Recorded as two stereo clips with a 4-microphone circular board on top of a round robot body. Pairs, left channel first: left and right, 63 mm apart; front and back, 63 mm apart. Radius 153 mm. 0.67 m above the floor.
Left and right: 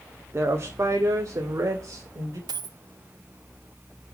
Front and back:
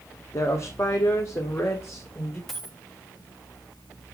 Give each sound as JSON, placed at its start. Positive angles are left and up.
{"t": 0.3, "sound": "a woman speaking", "azimuth_deg": -40, "distance_m": 2.0}
{"t": 2.5, "sound": "a dropped coin", "azimuth_deg": -90, "distance_m": 1.0}